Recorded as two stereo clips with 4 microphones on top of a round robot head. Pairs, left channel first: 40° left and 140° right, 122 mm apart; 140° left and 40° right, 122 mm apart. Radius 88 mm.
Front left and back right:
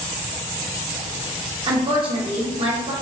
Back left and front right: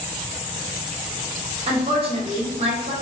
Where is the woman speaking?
85° right, 1.3 m.